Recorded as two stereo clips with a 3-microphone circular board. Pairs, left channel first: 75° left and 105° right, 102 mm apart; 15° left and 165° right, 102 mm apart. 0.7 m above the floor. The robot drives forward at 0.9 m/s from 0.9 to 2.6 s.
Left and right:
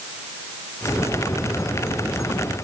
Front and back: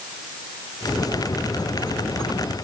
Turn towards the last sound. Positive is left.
No sound to turn to.